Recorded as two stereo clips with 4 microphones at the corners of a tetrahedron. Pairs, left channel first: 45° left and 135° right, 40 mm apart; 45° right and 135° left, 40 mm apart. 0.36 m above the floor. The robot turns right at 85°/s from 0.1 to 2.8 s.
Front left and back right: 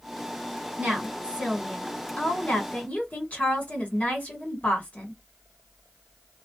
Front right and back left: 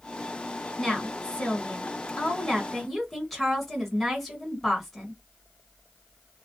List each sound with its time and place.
0.8 s a woman speaking: 130° right, 1.8 m; by 5.2 s 40° left, 1.8 m